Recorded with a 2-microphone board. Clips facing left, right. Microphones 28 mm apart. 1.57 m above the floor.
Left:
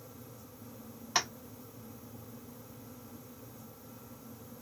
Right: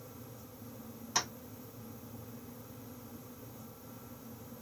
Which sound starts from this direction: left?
Tapping, at 1.1 s.